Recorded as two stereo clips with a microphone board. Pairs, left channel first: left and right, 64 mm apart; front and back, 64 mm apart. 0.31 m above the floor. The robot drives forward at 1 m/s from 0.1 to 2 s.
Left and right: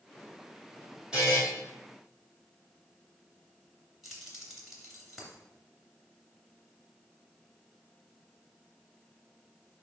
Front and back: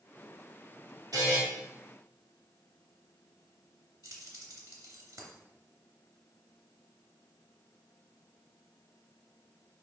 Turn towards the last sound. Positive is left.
turn(degrees=-175)